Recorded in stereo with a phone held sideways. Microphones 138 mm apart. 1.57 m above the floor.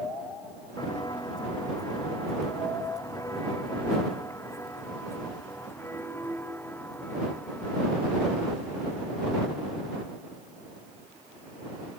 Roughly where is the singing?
I don't hear singing.